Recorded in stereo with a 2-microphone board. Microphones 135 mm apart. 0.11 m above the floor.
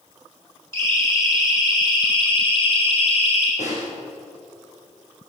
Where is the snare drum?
65° left (ahead or behind), 5.5 m.